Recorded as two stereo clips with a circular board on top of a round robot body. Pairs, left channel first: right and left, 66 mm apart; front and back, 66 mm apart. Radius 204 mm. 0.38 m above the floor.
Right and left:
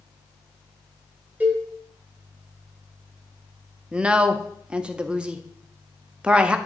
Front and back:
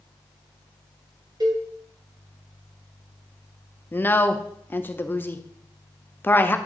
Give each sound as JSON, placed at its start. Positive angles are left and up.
{"t": 1.4, "sound": "a cowbell", "azimuth_deg": 155, "distance_m": 1.4}
{"t": 3.9, "sound": "a woman speaking", "azimuth_deg": 25, "distance_m": 0.9}